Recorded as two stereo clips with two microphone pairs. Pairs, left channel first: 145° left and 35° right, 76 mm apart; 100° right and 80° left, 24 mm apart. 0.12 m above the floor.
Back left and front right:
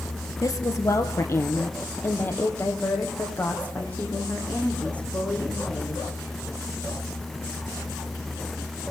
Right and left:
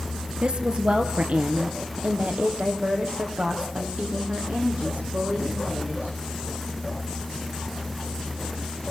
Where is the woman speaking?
110° left, 2 m; by 6.2 s 70° left, 7 m.